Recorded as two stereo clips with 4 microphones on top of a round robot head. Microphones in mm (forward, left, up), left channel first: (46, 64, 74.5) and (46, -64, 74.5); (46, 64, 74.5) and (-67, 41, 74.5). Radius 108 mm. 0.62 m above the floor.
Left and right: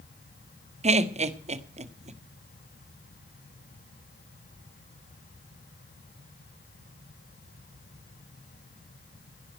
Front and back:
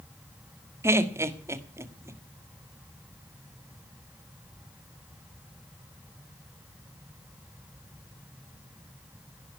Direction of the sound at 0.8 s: 105° right.